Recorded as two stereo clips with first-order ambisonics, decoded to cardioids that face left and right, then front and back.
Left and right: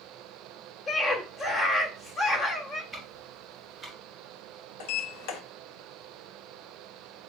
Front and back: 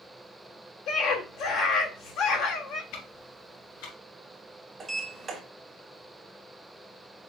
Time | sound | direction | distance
0.9 | a scream | 25° left | 1.4 m
2.9 | ticking | 5° right | 2 m
4.8 | a sliding door | 105° left | 1.1 m